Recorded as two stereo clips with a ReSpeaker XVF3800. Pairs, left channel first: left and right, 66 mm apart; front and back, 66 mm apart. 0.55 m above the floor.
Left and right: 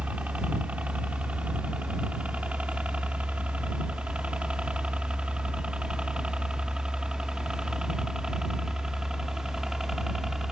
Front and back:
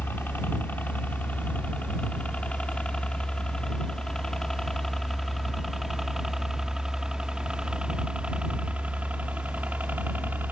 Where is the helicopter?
35° right; by 10.5 s 165° right.